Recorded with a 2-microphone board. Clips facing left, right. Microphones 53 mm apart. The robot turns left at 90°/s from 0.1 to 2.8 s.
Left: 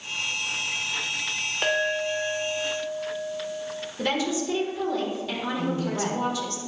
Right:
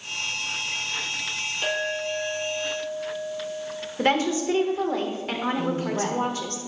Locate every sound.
1.6 s a clink: 110° left, 1.1 m; by 3.9 s 5° left, 1.1 m
4.0 s a woman speaking: 45° right (ahead or behind), 1.4 m
5.6 s a woman speaking: 15° right (ahead or behind), 3 m